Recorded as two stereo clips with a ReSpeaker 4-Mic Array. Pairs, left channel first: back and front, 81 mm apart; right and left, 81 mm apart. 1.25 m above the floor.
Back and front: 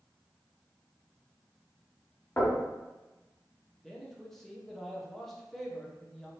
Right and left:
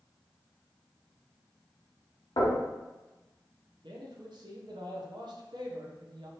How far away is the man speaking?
About 0.7 m.